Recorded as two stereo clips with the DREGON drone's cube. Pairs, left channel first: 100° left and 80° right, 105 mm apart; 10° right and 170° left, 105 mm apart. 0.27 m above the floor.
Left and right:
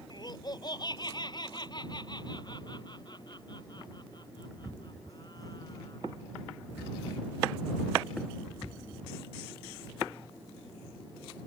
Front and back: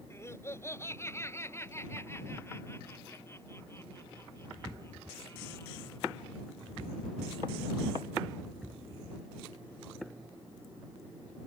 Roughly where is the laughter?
Ahead left.